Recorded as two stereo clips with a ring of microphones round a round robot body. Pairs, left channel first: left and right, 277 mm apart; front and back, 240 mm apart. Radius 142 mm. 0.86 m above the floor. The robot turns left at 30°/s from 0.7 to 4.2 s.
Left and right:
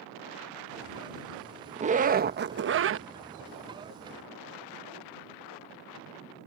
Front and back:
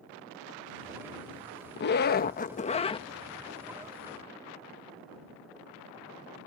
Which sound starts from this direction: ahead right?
A zipper, at 1.8 s.